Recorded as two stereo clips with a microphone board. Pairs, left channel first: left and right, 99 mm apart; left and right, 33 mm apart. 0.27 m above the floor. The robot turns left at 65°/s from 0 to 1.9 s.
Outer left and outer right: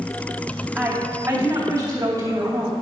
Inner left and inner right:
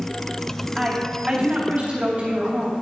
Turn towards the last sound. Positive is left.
turn(degrees=-95)